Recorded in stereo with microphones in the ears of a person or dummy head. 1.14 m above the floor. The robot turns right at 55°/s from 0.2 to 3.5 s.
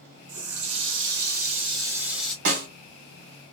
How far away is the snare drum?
About 1.4 m.